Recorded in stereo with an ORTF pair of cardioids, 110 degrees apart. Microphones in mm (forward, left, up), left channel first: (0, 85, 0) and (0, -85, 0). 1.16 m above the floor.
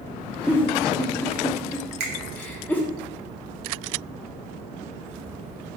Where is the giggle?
10° left, 0.8 m.